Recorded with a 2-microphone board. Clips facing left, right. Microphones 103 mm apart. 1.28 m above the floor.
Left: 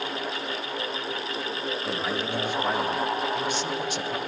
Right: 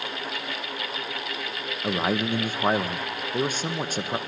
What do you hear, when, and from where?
1.8 s a man speaking: 45° right (ahead or behind), 1.4 m